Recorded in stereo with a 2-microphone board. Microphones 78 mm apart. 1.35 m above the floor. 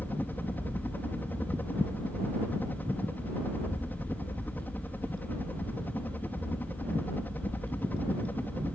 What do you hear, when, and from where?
0.0 s a helicopter: 20° left (ahead or behind)